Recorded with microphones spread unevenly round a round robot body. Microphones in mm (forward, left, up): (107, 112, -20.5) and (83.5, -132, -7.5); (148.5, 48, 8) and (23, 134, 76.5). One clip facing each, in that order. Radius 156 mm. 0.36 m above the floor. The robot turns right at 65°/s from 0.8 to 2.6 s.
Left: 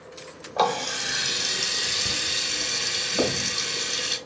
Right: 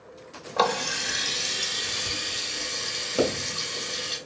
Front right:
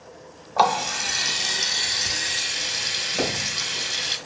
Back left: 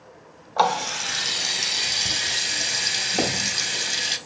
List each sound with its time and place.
0.6 s a running tap: 15° right, 0.7 m; by 4.2 s 100° left, 0.7 m
3.2 s a pop: 130° right, 1.3 m